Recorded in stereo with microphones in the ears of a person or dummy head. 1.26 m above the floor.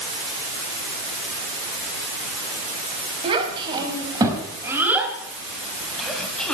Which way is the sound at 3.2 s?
25° right (ahead or behind).